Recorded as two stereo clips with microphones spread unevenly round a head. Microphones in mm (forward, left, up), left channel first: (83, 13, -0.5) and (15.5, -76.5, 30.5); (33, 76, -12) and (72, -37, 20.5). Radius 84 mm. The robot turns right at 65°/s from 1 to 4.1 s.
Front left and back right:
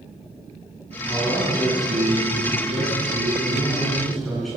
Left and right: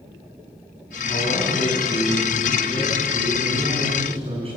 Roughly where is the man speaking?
Behind left.